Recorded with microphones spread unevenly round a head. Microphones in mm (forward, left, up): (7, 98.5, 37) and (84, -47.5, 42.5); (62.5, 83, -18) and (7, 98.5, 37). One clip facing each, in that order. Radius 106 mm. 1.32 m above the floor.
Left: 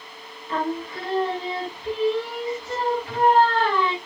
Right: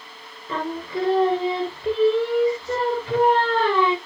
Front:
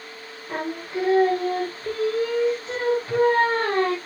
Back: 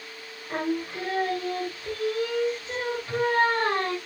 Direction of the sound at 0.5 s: 105° right.